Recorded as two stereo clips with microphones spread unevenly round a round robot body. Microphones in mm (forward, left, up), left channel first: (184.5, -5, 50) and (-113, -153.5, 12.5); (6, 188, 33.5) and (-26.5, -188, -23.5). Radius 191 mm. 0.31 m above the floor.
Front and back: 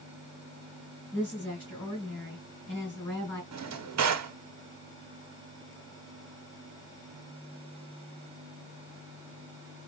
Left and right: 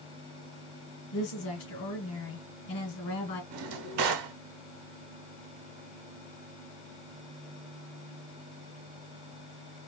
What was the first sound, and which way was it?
A woman speaking, 105° left.